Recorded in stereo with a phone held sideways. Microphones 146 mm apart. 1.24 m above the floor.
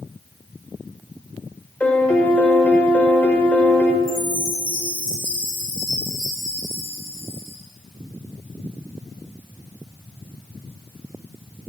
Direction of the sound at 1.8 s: 10° left (ahead or behind).